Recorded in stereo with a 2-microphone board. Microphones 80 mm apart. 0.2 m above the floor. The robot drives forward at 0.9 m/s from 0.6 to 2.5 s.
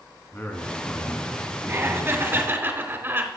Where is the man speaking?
25° left (ahead or behind), 1.9 m; by 2.7 s 15° left (ahead or behind), 3.5 m.